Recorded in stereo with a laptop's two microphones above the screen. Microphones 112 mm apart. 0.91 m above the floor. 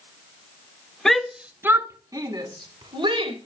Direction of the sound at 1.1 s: 5° left (ahead or behind).